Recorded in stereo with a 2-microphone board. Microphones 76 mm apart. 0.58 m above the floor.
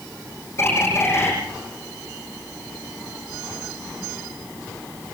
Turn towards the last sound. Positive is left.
turn(degrees=35)  # may be behind; listen again after turning